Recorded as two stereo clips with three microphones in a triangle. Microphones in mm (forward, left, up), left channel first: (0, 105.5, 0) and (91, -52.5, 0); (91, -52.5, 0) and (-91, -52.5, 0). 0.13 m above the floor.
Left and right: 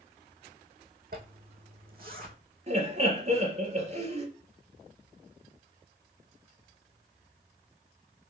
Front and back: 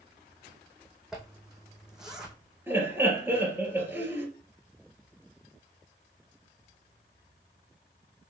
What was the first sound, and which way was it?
A zipper, 95° right.